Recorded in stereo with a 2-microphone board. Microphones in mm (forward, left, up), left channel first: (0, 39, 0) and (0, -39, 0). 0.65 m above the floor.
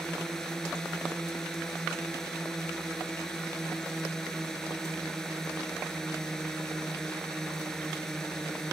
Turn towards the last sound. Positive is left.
turn(degrees=5)  # may be behind; listen again after turning